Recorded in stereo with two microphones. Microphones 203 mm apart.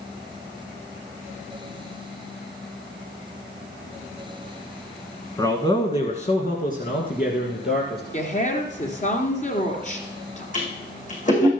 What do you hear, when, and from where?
5.4 s a man speaking: 15° left (ahead or behind), 1.3 m; by 8.0 s 55° left (ahead or behind), 2.5 m
8.1 s a woman speaking: 35° left (ahead or behind), 2.5 m
10.5 s a toilet flushing: 40° left (ahead or behind), 5.5 m